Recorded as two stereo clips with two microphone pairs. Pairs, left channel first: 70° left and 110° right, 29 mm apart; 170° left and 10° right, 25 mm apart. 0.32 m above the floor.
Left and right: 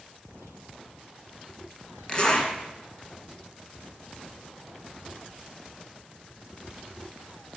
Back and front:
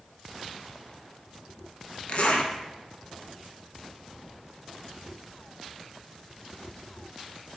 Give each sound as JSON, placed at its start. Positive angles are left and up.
{"t": 2.1, "sound": "a zipper", "azimuth_deg": 135, "distance_m": 0.6}